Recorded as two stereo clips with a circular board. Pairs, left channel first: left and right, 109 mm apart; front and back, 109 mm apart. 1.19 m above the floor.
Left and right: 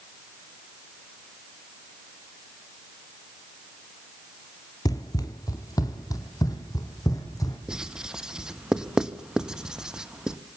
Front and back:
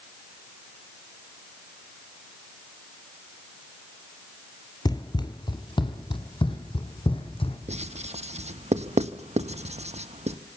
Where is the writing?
175° right, 1.1 m.